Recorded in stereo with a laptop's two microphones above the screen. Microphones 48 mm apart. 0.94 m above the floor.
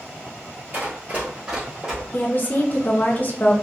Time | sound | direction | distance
0.7 | running footsteps | 40° right (ahead or behind) | 1.1 m
2.1 | a woman speaking | 40° left (ahead or behind) | 0.5 m